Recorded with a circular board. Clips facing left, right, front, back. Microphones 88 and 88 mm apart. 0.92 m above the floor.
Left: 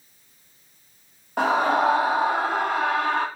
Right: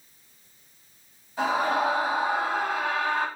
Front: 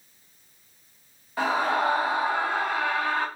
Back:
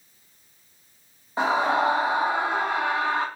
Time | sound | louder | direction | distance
1.4 | a scream | left 4 dB, back 2 dB | 115° left | 1.6 m